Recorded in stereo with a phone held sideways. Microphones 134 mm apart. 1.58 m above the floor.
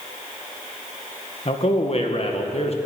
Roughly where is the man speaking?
Left.